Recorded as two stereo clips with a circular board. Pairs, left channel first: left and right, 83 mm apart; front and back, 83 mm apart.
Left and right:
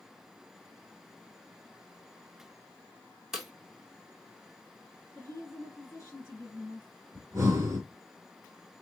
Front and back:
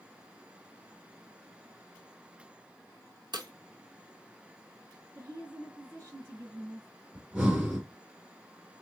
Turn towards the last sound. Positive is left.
turn(degrees=-115)